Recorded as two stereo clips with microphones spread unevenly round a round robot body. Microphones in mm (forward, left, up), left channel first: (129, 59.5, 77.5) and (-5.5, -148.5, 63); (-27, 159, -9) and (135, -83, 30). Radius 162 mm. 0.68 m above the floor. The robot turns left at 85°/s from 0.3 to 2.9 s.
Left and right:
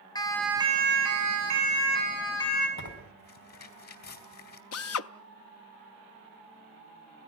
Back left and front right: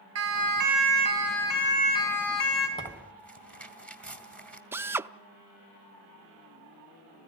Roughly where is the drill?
Ahead left.